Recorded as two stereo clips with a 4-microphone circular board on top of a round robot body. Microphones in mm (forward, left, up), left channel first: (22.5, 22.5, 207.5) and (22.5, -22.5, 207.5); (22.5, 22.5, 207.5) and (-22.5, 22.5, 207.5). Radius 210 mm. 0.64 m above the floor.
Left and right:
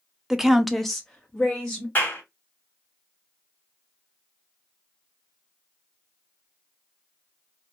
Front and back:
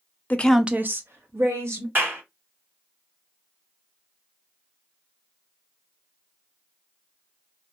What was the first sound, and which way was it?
A woman speaking, 15° right.